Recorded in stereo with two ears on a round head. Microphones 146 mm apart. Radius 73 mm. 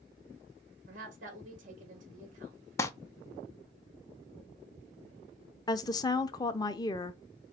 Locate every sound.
0.9 s a woman speaking: 50° right (ahead or behind), 1.9 m
2.8 s crumpling: 15° left (ahead or behind), 0.5 m
5.7 s a woman speaking: 20° left (ahead or behind), 0.5 m